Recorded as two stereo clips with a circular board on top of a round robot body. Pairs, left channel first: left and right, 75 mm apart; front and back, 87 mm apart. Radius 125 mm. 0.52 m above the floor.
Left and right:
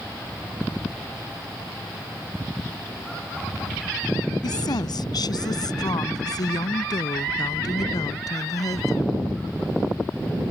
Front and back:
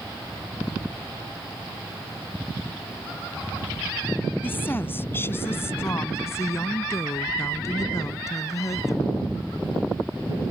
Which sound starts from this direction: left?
A woman speaking, at 4.4 s.